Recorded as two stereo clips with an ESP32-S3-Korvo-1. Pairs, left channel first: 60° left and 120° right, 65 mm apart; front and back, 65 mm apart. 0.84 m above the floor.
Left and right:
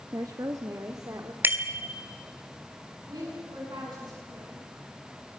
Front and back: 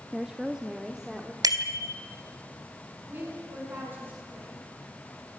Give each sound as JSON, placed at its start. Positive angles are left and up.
{"t": 0.1, "sound": "a woman speaking", "azimuth_deg": -100, "distance_m": 1.2}
{"t": 1.4, "sound": "a bicycle bell", "azimuth_deg": -175, "distance_m": 2.5}
{"t": 3.1, "sound": "a woman speaking", "azimuth_deg": -125, "distance_m": 8.0}